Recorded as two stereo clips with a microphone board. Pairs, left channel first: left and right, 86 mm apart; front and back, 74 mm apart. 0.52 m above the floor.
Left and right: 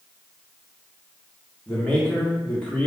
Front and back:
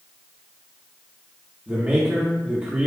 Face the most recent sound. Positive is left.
turn(degrees=145)